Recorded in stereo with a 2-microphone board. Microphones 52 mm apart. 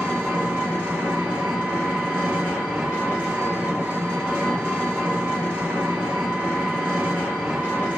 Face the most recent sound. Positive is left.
turn(degrees=-20)  # may be behind; listen again after turning